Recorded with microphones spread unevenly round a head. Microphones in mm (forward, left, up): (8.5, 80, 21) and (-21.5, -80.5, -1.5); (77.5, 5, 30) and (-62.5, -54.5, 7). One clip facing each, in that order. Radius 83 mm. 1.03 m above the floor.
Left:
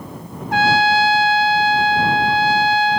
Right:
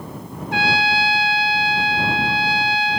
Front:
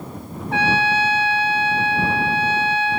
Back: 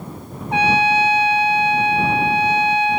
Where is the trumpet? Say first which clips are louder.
Left 6 dB, back 3 dB; 125° left.